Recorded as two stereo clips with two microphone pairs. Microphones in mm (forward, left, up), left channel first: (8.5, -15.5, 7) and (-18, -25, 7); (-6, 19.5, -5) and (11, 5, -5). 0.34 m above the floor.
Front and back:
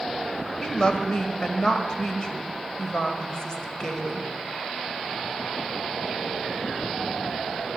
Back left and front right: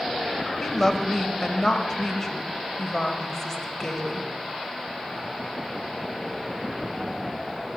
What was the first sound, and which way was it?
A woman speaking, 70° left.